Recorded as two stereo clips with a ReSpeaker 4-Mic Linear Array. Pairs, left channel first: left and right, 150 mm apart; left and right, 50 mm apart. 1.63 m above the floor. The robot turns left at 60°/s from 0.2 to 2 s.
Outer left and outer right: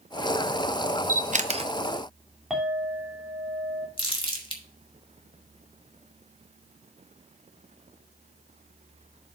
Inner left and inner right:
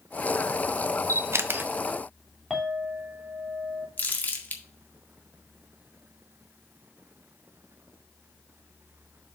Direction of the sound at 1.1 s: 70° right (ahead or behind).